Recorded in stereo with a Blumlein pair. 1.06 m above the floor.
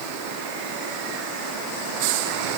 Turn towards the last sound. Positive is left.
No sound to turn to.